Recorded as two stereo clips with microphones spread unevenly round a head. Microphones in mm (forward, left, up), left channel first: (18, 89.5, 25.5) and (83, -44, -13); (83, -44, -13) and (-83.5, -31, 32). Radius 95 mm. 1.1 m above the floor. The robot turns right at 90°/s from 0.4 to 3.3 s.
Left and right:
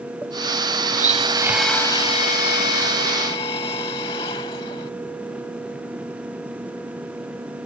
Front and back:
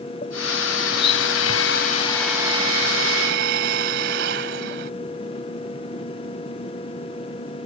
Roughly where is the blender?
Ahead right.